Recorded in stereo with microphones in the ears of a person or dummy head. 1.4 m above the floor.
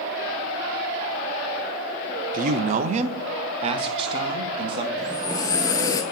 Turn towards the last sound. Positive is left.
turn(degrees=20)  # may be behind; listen again after turning